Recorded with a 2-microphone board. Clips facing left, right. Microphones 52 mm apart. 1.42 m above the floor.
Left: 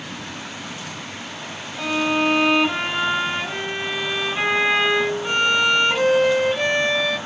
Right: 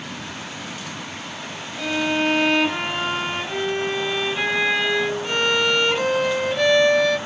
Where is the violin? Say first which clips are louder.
Left 1 dB; 20° left (ahead or behind), 2 m.